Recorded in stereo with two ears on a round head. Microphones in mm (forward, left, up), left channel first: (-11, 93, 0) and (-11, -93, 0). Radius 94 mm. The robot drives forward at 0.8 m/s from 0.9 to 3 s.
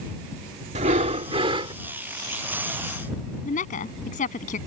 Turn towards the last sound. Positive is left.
turn(degrees=35)  # may be behind; listen again after turning